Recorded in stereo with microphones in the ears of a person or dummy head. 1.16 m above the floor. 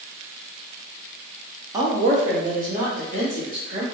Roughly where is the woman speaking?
Right.